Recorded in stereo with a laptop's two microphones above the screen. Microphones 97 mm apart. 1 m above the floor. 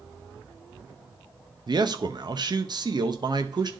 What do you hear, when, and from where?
1.7 s a man speaking: 45° right (ahead or behind), 0.6 m